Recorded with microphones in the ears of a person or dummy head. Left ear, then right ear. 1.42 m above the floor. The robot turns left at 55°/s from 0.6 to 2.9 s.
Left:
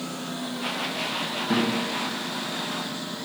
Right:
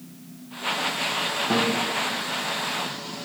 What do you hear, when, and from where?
1.5 s a guitar: 25° right (ahead or behind), 1.0 m; by 1.7 s 15° right (ahead or behind), 1.0 m